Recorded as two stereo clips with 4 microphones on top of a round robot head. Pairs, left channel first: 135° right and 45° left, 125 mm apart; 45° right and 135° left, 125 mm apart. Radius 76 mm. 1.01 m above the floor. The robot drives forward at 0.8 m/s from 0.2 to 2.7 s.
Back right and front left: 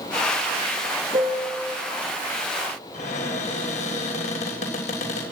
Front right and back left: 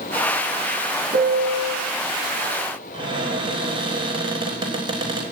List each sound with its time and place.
1.1 s a piano: 100° left, 1.9 m; by 1.8 s 115° left, 2 m
2.9 s a cupboard door: 170° right, 4.5 m